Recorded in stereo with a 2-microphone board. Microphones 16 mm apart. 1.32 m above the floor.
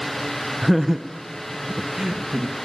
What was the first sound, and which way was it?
Laughter, 20° left (ahead or behind).